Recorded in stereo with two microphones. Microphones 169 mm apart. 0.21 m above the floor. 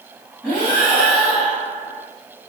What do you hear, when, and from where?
0.4 s breathing: 10° left (ahead or behind), 1.6 m